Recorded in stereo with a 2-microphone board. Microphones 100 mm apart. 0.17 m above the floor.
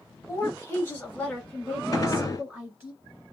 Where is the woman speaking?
30° left (ahead or behind), 1.3 m; by 2.9 s 15° right (ahead or behind), 1.7 m.